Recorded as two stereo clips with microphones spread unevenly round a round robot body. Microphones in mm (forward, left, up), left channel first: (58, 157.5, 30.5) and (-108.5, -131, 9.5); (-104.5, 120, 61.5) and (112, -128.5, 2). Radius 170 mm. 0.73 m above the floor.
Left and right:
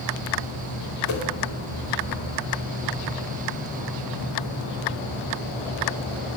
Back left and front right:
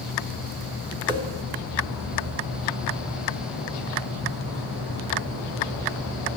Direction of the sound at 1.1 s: 20° left.